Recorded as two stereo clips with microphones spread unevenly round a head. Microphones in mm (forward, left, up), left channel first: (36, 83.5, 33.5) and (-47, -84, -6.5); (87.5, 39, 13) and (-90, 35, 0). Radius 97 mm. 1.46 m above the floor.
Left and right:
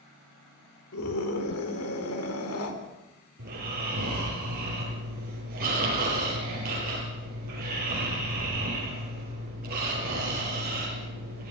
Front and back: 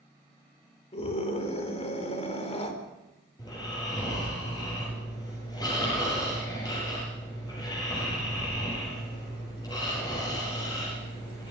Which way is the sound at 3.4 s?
70° right.